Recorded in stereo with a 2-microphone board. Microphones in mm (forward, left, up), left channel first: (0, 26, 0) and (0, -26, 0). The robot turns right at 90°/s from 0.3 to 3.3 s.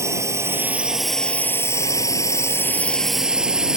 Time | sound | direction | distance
0.0 | a drone | 65° right (ahead or behind) | ?